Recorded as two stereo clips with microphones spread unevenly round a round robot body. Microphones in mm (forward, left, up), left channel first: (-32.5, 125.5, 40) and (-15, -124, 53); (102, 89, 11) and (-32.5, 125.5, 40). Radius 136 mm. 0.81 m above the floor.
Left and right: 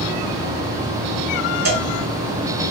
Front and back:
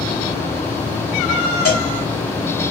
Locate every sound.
1.6 s a cowbell: 40° right, 1.4 m